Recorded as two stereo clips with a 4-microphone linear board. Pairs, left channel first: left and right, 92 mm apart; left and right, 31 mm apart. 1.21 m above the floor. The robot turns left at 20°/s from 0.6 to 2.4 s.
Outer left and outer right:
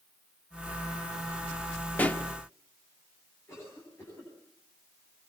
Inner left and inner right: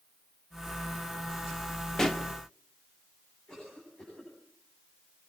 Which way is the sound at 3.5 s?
30° left (ahead or behind).